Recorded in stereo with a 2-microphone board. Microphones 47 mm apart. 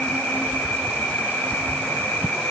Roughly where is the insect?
Left.